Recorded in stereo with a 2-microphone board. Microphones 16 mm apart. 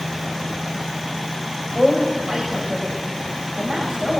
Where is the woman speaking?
10° right (ahead or behind), 7 m; by 4.2 s 20° right (ahead or behind), 8 m.